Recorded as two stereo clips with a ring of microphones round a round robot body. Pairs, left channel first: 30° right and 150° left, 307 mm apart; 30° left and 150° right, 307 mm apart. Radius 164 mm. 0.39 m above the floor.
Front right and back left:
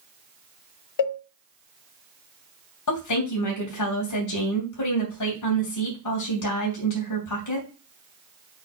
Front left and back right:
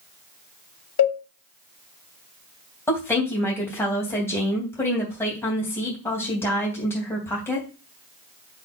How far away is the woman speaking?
About 3 m.